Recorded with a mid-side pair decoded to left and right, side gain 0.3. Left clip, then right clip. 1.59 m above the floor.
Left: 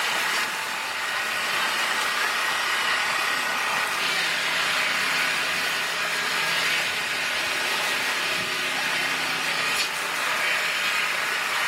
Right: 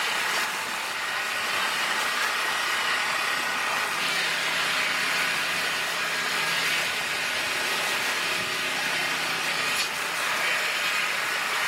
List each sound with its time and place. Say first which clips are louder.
0.0 s an engine running: left 2 dB; 15° left, 2.0 m